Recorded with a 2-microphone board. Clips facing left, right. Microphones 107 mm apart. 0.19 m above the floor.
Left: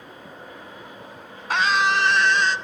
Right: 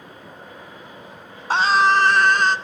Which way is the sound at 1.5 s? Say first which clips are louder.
Right 4 dB; 30° right (ahead or behind).